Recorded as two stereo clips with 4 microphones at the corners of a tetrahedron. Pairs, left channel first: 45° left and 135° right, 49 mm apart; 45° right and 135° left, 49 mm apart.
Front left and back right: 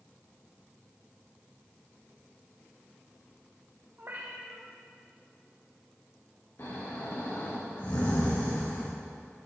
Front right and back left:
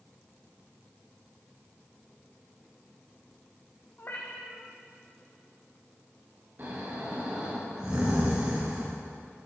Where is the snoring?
85° left, 4.5 m.